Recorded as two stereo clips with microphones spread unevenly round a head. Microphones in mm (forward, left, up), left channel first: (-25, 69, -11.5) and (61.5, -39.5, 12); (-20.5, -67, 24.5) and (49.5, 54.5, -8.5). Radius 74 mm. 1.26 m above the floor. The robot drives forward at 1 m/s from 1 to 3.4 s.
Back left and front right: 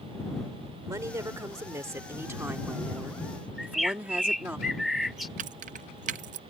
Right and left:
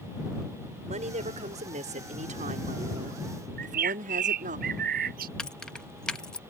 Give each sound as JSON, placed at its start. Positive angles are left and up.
{"t": 0.9, "sound": "a woman speaking", "azimuth_deg": 15}
{"t": 3.6, "sound": "a bird", "azimuth_deg": 35}
{"t": 5.4, "sound": "keys jangling", "azimuth_deg": -40}